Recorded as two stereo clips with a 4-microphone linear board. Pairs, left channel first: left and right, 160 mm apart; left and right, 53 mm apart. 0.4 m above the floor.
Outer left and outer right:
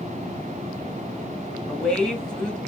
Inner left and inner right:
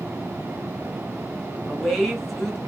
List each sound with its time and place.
1.7 s a woman speaking: 5° left (ahead or behind), 1.6 m